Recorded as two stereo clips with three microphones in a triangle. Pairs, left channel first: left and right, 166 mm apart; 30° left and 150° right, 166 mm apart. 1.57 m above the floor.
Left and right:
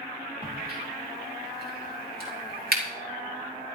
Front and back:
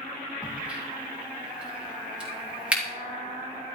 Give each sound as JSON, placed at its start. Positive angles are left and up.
{"t": 0.4, "sound": "a crack", "azimuth_deg": -65, "distance_m": 3.5}